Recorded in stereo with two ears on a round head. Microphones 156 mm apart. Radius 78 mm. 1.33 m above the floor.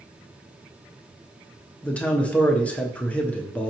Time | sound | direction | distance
1.8 | a man speaking | 10° left (ahead or behind) | 0.7 m